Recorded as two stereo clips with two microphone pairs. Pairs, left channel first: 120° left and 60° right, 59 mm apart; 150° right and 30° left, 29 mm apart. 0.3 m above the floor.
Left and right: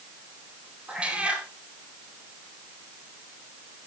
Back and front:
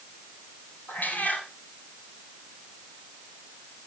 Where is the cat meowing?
125° right, 2.5 m.